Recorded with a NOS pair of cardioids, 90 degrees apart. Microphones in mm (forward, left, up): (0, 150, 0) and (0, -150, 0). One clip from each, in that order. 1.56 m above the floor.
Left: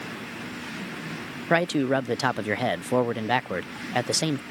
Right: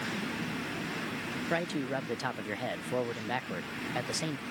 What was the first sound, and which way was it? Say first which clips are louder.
A man speaking: left 11 dB; 50° left.